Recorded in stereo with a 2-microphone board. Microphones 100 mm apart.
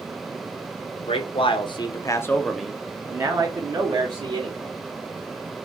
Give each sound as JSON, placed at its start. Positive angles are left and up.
{"t": 1.0, "sound": "a man speaking", "side_deg": 70, "distance_m": 1.0}